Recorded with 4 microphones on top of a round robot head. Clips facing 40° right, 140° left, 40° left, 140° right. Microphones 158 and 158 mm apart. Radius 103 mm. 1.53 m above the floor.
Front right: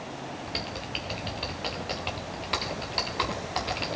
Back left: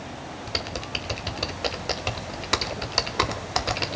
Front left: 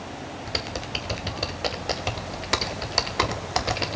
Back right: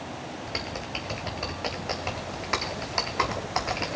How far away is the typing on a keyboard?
About 0.5 m.